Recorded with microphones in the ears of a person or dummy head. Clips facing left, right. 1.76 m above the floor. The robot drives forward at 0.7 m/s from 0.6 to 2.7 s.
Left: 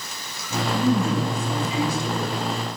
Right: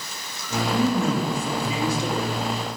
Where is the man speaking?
65° right (ahead or behind), 8.5 m; by 2.8 s 70° right (ahead or behind), 8 m.